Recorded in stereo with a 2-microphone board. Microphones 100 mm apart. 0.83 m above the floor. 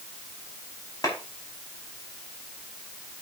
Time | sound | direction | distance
1.0 | a clap | 35° left (ahead or behind) | 5 m